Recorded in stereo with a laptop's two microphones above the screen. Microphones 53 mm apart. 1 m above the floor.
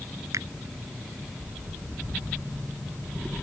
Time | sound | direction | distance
0.3 | a finger snap | 85° right | ?